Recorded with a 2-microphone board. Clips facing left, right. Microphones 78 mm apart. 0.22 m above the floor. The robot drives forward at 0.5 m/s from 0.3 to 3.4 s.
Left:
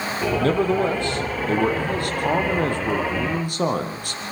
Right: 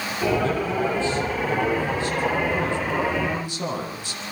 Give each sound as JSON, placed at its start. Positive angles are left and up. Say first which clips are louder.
{"t": 0.4, "sound": "a man speaking", "louder": "left 4 dB", "side_deg": 60, "distance_m": 6.0}